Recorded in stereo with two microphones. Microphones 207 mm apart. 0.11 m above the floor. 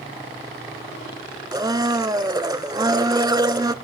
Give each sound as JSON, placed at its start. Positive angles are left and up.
{"t": 1.5, "sound": "a blender", "side_deg": -20, "distance_m": 0.6}